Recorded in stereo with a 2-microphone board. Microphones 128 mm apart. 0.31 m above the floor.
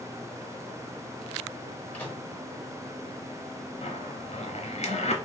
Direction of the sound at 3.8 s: 60° left (ahead or behind).